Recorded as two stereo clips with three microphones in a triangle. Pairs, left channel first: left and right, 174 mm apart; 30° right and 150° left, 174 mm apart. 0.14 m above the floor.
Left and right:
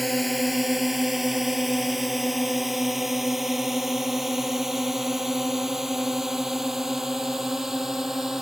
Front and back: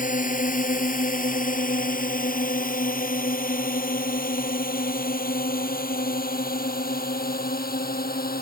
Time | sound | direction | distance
0.0 | a drone | straight ahead | ?